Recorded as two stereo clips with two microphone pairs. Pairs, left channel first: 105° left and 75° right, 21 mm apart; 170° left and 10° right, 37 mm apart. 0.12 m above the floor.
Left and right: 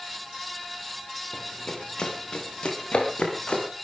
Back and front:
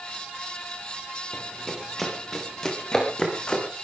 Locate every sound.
1.3 s running footsteps: 75° left, 5.5 m; by 3.7 s 105° left, 6.5 m